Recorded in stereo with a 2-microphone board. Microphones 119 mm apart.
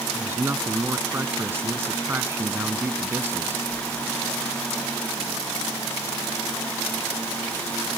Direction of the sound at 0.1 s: 20° right (ahead or behind).